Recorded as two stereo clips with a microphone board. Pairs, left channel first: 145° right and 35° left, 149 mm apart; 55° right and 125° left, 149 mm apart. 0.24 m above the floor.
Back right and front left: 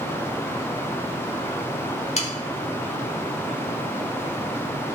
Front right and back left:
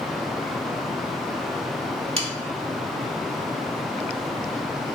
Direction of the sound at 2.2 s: 175° left.